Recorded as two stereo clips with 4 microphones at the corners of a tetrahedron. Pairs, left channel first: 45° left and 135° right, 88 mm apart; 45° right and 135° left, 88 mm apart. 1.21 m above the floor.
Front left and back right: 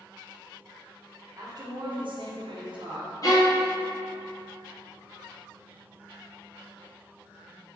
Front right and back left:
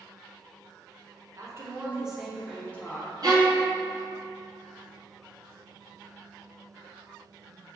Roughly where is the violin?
Left.